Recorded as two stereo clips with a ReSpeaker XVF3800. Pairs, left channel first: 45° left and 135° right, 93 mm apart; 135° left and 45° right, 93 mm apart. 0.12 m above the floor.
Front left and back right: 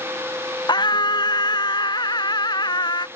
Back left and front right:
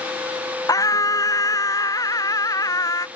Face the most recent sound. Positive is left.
turn(degrees=85)